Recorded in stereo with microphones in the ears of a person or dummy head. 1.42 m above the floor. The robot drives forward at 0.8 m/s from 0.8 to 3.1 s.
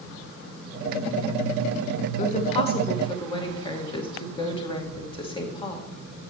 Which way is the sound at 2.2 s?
40° left (ahead or behind).